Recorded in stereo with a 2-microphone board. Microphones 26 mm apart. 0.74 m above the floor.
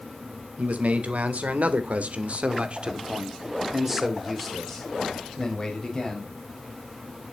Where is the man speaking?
80° right, 3 m; by 6.3 s 25° left (ahead or behind), 3.5 m.